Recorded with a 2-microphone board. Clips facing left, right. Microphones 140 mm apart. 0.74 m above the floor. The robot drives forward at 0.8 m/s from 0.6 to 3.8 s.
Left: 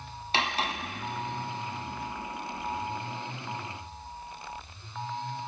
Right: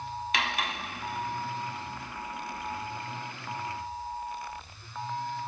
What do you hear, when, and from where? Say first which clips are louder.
0.3 s cutlery clinking: left 4 dB; 30° left (ahead or behind), 0.6 m; by 0.8 s 35° left (ahead or behind), 0.5 m